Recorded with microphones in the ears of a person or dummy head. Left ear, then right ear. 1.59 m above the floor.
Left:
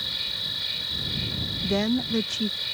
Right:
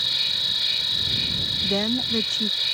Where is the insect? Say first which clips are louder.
Right 6 dB; 20° right (ahead or behind).